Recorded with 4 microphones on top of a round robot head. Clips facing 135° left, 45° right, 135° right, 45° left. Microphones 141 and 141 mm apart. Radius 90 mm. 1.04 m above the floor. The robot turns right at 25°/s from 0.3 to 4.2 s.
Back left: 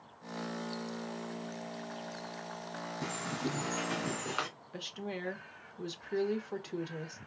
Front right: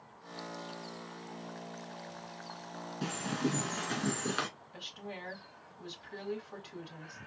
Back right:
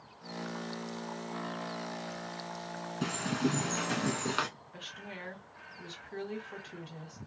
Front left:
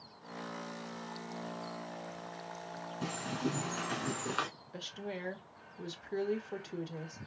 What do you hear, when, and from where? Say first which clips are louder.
3.0 s a bird: front right 4 dB, back right 5 dB; 125° right, 1.7 m; by 4.5 s 95° right, 1.7 m
4.7 s a woman speaking: back left 9 dB, front left 5 dB; 95° left, 1.0 m